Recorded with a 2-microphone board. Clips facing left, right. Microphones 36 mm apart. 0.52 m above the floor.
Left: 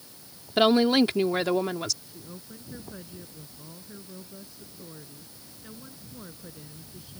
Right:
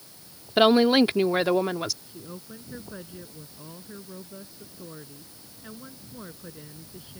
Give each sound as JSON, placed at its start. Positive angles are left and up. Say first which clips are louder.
{"t": 0.6, "sound": "a woman speaking", "louder": "right 2 dB", "side_deg": -10}
{"t": 2.1, "sound": "a woman speaking", "louder": "right 3 dB", "side_deg": -20}